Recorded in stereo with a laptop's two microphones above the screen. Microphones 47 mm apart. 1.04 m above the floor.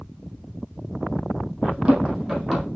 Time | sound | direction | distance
1.6 | running footsteps | 20° right (ahead or behind) | 2.5 m